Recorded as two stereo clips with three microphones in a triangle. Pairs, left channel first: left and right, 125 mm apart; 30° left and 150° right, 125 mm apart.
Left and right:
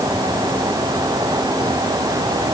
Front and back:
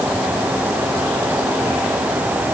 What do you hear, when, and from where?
Only background noise.